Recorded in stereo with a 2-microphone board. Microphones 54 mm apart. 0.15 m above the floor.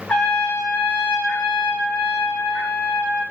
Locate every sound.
0.1 s a trumpet: 20° left (ahead or behind), 1.1 m